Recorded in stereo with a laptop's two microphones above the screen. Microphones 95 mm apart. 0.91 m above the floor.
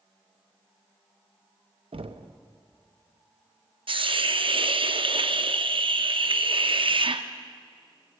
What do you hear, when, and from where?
1.9 s knocking: 75° right (ahead or behind), 0.6 m
3.9 s a hiss: 65° right (ahead or behind), 0.6 m